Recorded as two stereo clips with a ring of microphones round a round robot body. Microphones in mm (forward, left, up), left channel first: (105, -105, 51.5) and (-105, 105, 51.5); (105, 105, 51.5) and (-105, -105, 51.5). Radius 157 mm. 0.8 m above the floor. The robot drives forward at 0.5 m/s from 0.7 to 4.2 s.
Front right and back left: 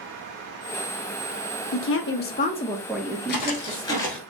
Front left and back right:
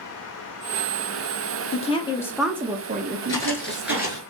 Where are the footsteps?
20° right, 0.8 m; by 4.2 s 120° right, 0.7 m.